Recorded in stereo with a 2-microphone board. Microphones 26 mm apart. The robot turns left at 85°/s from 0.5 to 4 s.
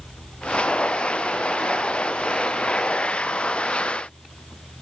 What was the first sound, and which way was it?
Only background noise.